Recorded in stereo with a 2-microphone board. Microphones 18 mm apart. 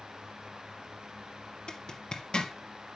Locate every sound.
1.7 s a zipper: 55° left (ahead or behind), 2.5 m